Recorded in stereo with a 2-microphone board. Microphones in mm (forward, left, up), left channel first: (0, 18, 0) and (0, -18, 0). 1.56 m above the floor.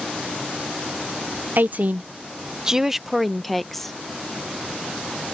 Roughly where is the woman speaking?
Right.